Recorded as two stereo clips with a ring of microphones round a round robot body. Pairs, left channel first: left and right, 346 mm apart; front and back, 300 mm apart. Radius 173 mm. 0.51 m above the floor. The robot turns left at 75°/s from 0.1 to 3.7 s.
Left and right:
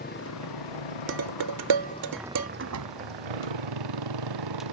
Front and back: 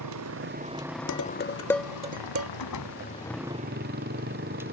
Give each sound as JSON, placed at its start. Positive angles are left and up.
{"t": 0.0, "sound": "a motorcycle", "azimuth_deg": 155}
{"t": 1.1, "sound": "dishes clattering", "azimuth_deg": -35}
{"t": 2.6, "sound": "a door slam", "azimuth_deg": -35}